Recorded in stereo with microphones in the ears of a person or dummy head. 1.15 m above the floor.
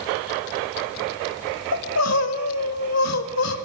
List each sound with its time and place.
1.7 s crying: 80° left, 1.7 m